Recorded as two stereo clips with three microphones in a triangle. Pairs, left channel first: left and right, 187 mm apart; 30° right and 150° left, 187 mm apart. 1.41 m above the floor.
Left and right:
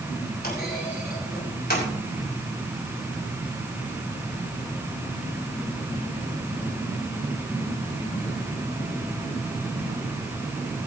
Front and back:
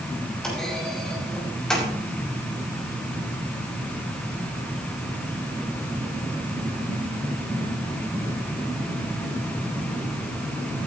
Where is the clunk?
55° left, 6 m.